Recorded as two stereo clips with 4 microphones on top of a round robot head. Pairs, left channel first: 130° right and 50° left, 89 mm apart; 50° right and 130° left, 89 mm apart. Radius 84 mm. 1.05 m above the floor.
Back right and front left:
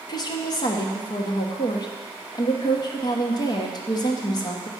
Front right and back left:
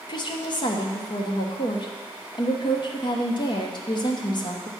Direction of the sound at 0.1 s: 85° right.